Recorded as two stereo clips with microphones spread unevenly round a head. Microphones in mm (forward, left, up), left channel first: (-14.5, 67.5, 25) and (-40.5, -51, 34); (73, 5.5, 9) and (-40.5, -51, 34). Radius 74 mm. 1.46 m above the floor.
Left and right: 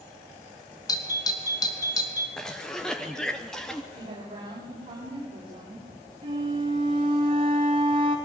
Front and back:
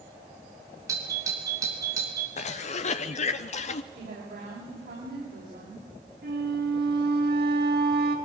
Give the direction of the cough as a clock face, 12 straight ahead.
12 o'clock.